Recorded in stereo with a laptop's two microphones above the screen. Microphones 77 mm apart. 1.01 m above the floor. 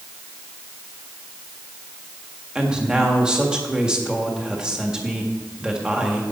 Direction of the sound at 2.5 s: 10° right (ahead or behind).